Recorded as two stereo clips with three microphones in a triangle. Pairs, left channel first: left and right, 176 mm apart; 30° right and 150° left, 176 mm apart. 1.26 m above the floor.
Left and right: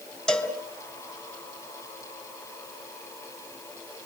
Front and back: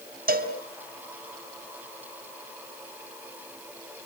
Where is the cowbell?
175° left, 4 m.